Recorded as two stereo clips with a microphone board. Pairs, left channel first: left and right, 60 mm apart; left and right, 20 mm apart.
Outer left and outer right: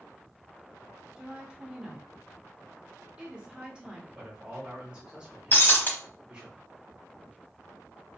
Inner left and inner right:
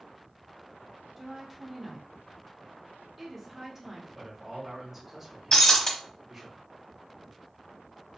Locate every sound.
1.2 s a woman speaking: 15° right (ahead or behind), 0.9 m
4.2 s a man speaking: 15° right (ahead or behind), 1.3 m
5.5 s breaking glass: 35° left (ahead or behind), 0.8 m